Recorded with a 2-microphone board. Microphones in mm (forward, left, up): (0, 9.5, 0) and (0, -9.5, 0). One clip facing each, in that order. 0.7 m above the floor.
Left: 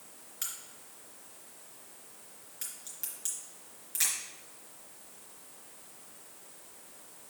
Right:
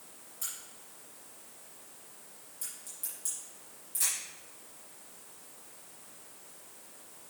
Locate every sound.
0.4 s a crack: 55° left (ahead or behind), 3.5 m